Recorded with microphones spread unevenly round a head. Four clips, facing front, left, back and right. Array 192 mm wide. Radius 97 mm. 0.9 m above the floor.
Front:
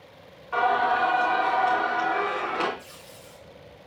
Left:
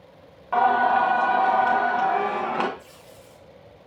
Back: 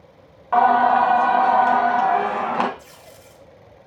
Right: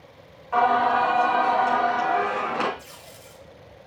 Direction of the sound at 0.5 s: 165° left.